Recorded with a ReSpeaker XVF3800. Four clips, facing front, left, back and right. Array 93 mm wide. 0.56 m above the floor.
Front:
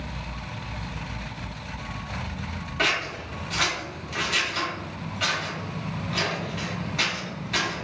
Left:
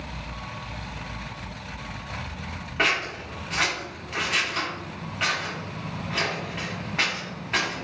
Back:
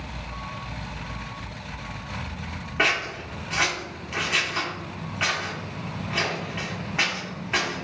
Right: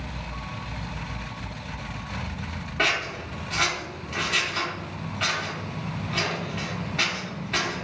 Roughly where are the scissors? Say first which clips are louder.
Left 1 dB, back 2 dB; behind left.